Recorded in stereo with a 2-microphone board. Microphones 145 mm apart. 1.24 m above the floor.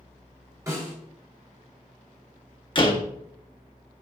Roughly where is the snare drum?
Right.